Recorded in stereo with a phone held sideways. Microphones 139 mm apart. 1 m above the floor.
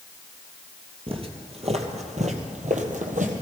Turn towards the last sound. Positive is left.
turn(degrees=-65)  # may be behind; listen again after turning